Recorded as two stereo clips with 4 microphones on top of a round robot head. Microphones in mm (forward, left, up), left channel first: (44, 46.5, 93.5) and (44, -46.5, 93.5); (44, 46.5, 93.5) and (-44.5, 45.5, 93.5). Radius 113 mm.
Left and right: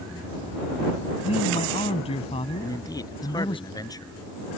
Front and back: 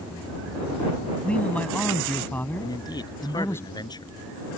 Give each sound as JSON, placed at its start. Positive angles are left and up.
{"t": 1.2, "sound": "a man speaking", "azimuth_deg": 80}
{"t": 2.6, "sound": "a man speaking", "azimuth_deg": 40}